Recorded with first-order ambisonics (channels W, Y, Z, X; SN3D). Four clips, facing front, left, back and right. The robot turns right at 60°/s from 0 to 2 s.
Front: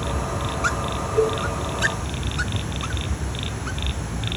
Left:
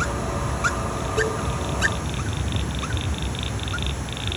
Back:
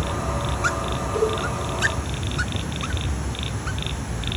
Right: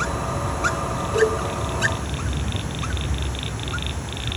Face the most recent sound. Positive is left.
turn(degrees=-55)